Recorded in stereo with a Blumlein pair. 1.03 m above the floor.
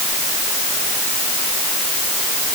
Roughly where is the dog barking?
I don't hear a dog barking.